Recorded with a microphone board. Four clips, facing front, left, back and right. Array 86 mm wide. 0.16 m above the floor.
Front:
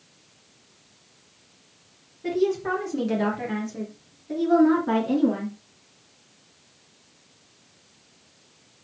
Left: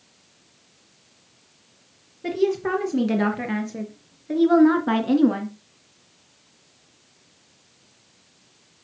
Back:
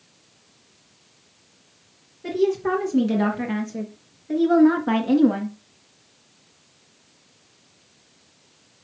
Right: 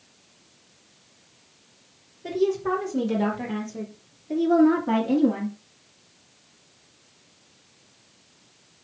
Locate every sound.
2.2 s a woman speaking: 95° left, 4 m; by 5.5 s 125° left, 2 m